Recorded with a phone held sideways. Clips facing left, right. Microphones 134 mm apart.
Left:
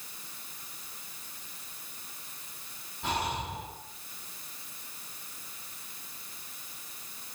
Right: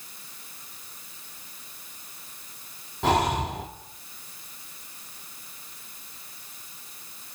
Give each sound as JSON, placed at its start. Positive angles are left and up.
{"t": 3.0, "sound": "breathing", "side_deg": -75, "distance_m": 2.5}